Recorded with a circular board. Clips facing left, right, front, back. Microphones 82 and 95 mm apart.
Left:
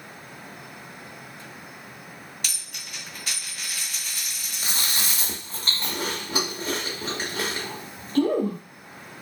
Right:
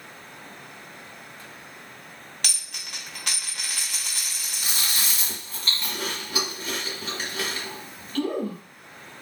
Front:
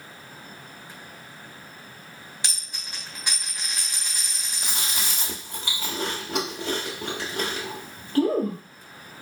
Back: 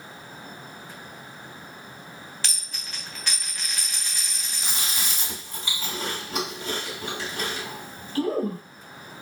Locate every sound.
2.4 s a dropped coin: 75° right, 0.7 m
4.6 s chewing: 30° left, 1.0 m